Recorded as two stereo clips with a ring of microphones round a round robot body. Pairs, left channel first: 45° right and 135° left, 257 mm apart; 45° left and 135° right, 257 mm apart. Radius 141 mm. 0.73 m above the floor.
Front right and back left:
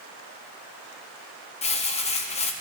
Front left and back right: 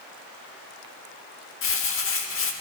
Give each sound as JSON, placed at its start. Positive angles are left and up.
{"t": 1.6, "sound": "crumpling", "azimuth_deg": 20, "distance_m": 1.1}